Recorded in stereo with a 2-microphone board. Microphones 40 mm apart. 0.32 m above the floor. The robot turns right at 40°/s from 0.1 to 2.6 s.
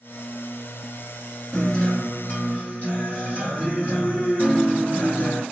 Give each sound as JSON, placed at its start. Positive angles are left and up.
{"t": 1.5, "sound": "a guitar", "azimuth_deg": 20, "distance_m": 1.9}